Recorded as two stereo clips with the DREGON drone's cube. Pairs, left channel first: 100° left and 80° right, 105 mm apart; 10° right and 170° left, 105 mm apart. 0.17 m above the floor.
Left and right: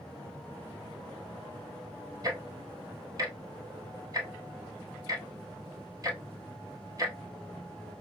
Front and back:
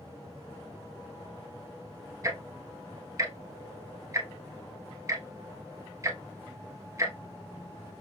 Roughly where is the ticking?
Behind right.